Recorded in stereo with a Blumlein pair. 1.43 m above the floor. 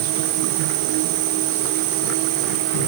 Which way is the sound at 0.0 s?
45° right.